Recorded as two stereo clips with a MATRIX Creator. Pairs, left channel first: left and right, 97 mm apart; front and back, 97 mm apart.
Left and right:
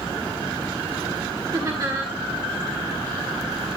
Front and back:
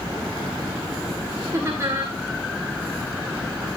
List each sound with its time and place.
1.5 s laughter: 130° right, 2 m